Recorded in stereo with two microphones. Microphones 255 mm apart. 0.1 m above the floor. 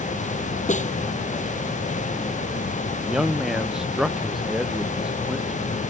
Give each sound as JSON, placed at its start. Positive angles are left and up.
{"t": 0.7, "sound": "a snare drum", "side_deg": 30}
{"t": 3.0, "sound": "a man speaking", "side_deg": 0}